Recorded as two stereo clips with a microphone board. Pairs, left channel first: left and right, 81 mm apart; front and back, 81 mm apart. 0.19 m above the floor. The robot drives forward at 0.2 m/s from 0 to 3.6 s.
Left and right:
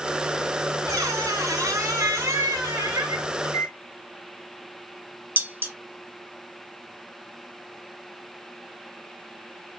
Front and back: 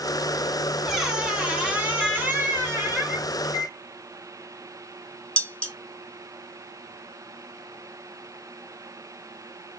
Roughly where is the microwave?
Behind left.